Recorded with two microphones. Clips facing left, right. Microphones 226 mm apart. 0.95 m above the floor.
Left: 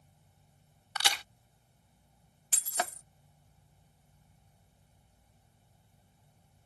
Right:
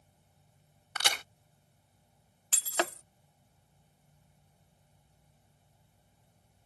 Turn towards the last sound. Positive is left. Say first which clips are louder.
# right 4 dB
turn(degrees=-85)